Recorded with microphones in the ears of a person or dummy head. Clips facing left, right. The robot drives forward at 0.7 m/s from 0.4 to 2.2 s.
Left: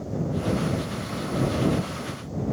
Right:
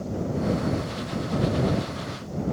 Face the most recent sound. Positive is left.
No sound to turn to.